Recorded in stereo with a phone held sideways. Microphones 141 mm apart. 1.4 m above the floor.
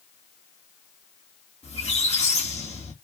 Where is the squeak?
50° left (ahead or behind), 1.6 m.